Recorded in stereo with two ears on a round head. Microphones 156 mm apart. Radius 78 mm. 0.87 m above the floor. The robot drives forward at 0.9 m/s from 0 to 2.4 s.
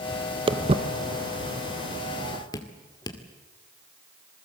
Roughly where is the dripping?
Left.